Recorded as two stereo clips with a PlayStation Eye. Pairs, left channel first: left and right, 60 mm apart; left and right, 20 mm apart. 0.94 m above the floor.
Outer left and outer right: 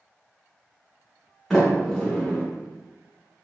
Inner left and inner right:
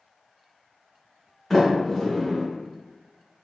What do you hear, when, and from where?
1.5 s a sliding door: centre (ahead or behind), 1.4 m